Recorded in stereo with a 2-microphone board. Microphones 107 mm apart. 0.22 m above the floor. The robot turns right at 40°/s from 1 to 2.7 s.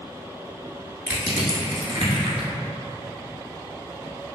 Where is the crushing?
10° right (ahead or behind), 0.9 m; by 2.5 s 65° right (ahead or behind), 0.9 m.